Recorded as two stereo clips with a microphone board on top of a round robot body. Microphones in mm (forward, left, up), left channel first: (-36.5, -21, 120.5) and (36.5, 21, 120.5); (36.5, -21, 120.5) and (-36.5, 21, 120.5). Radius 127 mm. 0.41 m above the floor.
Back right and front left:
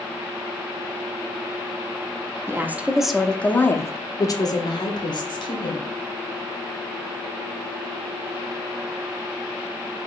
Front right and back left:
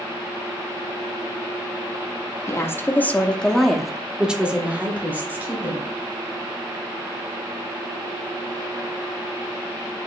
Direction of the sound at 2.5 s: 5° right.